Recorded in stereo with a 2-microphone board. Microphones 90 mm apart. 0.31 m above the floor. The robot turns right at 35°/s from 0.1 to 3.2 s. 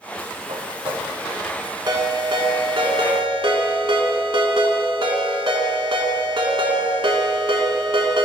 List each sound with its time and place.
0.5 s footsteps: 65° right (ahead or behind), 1.3 m; by 1.1 s 80° right, 1.3 m
1.9 s a ringtone: 120° right, 1.3 m; by 8.3 s 75° right, 1.3 m